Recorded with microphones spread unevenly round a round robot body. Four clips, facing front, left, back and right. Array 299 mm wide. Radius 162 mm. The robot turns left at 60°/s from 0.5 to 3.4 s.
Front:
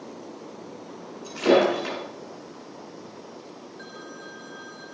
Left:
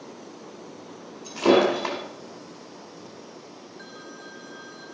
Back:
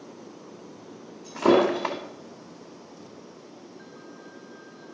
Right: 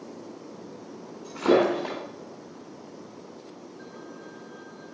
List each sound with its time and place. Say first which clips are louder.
1.2 s breaking glass: left 2 dB, even; straight behind, 2.0 m; by 2.0 s 140° left, 2.0 m